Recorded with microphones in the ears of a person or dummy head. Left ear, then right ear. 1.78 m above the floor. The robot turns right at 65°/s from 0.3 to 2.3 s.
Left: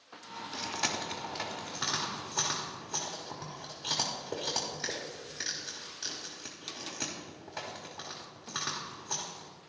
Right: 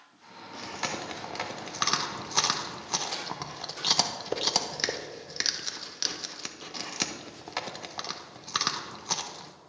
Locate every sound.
0.5 s chewing: 15° left (ahead or behind), 0.9 m; by 9.5 s 60° right (ahead or behind), 0.9 m